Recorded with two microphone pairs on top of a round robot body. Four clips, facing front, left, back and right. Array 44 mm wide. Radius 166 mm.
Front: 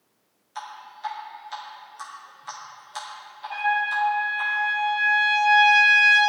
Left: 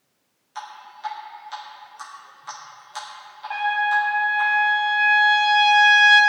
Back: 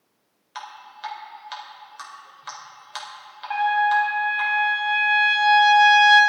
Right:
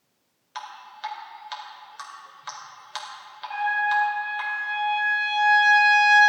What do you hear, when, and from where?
0.6 s dripping: 135° right, 3 m
3.5 s a trumpet: 155° left, 1.6 m